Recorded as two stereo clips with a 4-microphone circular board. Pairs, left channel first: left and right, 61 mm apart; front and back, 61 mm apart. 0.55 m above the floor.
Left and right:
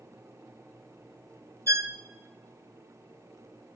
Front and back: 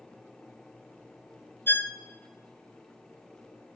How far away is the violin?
About 0.8 m.